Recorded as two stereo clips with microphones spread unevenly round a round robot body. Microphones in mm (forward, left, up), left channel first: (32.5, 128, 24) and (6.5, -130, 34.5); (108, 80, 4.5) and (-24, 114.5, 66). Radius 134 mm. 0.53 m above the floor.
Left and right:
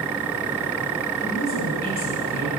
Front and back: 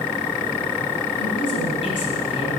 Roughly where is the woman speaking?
Ahead left.